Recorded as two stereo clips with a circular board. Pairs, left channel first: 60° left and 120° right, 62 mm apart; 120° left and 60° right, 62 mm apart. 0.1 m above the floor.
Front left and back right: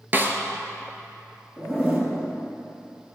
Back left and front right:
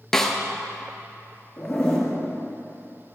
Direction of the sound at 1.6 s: Straight behind.